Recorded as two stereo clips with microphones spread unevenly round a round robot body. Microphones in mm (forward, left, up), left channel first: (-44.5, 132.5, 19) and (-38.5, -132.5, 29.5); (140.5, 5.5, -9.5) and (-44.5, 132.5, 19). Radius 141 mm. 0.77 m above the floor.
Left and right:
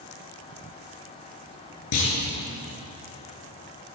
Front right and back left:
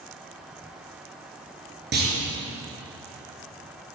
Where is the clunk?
105° left, 4.5 m.